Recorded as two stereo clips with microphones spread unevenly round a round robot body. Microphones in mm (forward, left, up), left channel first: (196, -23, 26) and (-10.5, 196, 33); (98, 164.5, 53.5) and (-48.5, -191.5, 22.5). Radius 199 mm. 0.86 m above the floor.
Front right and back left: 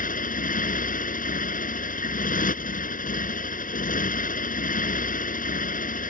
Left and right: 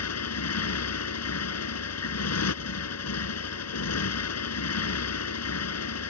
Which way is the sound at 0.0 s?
15° left.